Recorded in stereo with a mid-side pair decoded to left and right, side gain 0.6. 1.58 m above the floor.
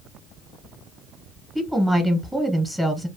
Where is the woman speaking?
Straight ahead, 0.9 m.